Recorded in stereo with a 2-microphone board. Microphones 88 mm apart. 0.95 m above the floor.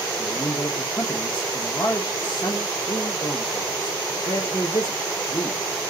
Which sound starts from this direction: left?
A man speaking, at 0.2 s.